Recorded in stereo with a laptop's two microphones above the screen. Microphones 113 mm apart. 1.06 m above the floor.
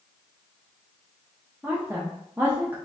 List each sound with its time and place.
1.6 s a woman speaking: 15° right (ahead or behind), 0.6 m